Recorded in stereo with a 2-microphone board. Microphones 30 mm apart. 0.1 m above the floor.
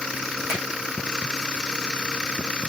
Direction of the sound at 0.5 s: 60° right (ahead or behind).